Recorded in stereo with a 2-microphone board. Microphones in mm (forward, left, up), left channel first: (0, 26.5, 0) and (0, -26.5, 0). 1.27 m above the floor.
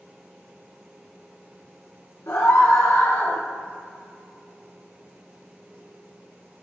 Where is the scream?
70° left (ahead or behind), 1.3 m; by 3.4 s 30° left (ahead or behind), 1.0 m.